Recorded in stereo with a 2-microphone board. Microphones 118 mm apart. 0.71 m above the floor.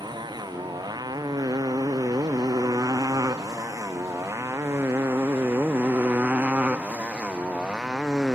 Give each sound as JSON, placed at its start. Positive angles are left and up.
{"t": 0.0, "sound": "a motorcycle", "side_deg": -35}